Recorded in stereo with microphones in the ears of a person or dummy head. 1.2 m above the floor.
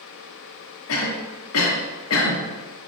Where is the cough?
70° left (ahead or behind), 1.1 m.